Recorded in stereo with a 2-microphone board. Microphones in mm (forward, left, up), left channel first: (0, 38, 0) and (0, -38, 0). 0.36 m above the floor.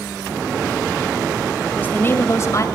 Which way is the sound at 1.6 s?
20° left (ahead or behind).